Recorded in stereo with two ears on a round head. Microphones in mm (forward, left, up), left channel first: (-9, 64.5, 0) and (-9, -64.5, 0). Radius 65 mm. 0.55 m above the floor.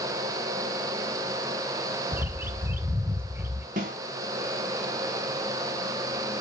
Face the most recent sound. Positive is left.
turn(degrees=-60)  # may be behind; listen again after turning